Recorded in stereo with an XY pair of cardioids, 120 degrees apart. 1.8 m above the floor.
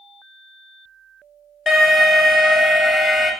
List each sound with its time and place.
1.7 s an alarm: 15° left, 1.0 m